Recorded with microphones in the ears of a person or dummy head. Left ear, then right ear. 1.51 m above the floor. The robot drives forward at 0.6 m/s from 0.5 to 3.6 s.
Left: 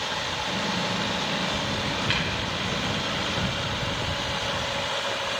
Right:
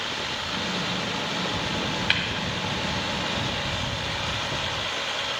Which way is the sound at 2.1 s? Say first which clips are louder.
Right 3 dB; 20° right (ahead or behind).